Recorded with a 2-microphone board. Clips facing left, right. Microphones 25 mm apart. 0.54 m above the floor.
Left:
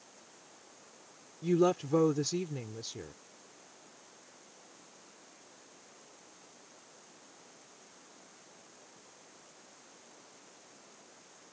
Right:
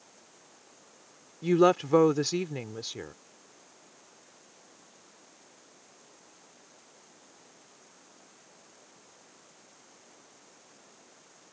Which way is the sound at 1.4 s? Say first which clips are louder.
Right 6 dB; 50° right (ahead or behind).